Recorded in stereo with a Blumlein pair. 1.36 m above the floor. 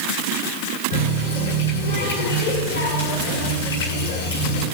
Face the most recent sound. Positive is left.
turn(degrees=65)